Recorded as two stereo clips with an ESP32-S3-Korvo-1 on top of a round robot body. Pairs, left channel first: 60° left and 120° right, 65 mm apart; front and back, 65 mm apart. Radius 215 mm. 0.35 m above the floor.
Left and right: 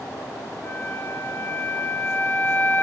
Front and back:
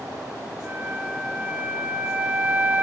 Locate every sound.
0.6 s a flute: 115° left, 3 m